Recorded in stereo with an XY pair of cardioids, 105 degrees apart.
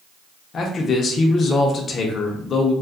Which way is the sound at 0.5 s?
50° left.